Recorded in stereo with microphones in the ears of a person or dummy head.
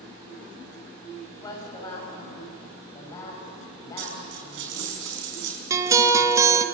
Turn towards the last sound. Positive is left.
turn(degrees=-20)  # may be behind; listen again after turning